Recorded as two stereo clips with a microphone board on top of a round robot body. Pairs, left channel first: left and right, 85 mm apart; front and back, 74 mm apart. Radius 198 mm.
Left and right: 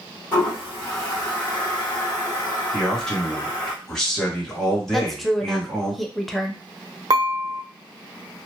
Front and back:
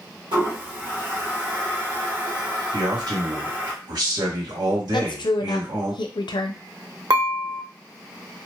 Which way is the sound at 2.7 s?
170° left.